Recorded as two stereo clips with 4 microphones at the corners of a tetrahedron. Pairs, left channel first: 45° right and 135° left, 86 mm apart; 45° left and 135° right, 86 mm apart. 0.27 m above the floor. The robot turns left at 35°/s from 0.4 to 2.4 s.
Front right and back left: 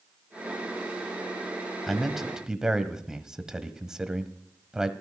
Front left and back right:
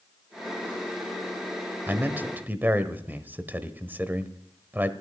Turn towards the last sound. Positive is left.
turn(degrees=-155)